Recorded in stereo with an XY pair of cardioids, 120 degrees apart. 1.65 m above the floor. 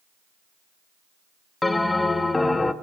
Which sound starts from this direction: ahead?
A bell, at 1.6 s.